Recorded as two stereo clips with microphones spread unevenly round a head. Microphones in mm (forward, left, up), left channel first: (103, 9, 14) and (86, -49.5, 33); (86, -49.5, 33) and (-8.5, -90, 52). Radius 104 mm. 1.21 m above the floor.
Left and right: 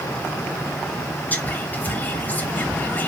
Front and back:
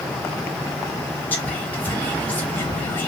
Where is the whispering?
75° left, 0.8 m.